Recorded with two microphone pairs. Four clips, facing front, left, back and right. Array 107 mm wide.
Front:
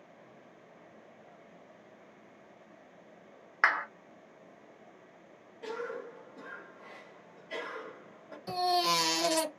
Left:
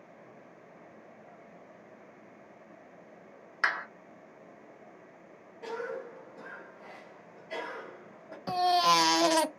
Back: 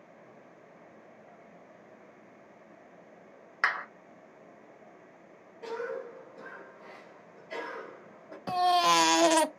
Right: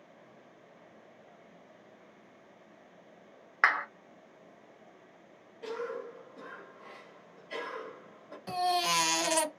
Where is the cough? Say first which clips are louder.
Even, back 3 dB; 140° left, 1.6 m.